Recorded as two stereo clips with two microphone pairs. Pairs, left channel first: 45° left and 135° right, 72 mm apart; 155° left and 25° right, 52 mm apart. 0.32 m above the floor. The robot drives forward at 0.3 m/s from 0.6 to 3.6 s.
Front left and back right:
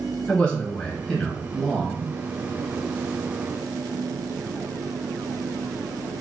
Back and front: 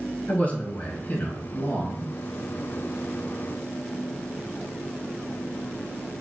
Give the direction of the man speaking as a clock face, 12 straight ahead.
8 o'clock.